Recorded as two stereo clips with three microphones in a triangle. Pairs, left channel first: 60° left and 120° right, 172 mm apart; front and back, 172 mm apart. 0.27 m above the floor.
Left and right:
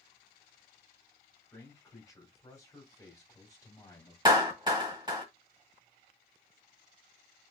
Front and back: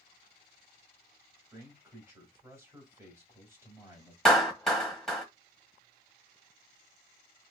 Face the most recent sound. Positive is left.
turn(degrees=-85)